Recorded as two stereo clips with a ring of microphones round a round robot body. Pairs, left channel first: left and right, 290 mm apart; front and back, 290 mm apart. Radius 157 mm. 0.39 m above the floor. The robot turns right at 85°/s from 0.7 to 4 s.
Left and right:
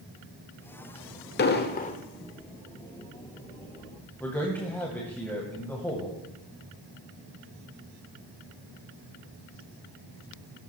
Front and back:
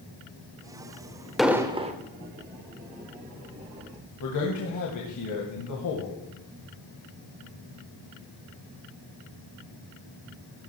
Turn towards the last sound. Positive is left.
turn(degrees=5)